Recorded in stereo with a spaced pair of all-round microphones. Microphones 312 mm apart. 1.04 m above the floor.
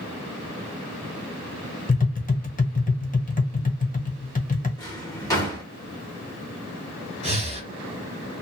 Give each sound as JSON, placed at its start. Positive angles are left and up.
{"t": 1.9, "sound": "tapping", "side_deg": 25, "distance_m": 0.8}
{"t": 4.8, "sound": "a drawer", "side_deg": 10, "distance_m": 1.7}
{"t": 7.2, "sound": "breathing", "side_deg": -20, "distance_m": 1.4}